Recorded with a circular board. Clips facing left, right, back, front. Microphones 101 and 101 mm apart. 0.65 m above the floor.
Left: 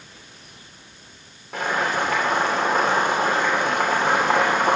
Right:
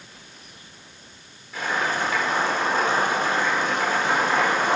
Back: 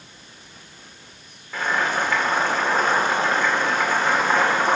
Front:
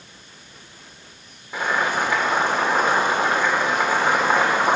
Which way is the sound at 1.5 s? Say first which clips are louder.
Left 2 dB, front 1 dB; 70° left.